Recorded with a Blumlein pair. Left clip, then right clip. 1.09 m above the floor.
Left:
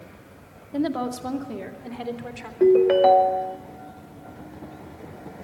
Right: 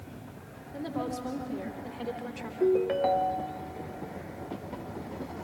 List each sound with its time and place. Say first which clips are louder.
0.7 s a woman speaking: left 8 dB; 30° left, 1.7 m; by 2.5 s 15° left, 3 m
2.6 s a ringtone: left 10 dB; 65° left, 0.5 m